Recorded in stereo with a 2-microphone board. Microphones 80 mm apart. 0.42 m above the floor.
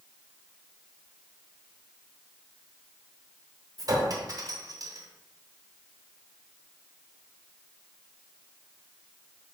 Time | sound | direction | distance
3.8 | a clink | 45° right (ahead or behind) | 1.0 m